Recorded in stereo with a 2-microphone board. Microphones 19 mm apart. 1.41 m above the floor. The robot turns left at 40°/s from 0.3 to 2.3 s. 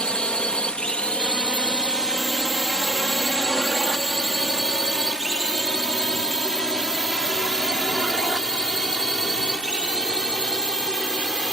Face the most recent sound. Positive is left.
turn(degrees=45)  # may be behind; listen again after turning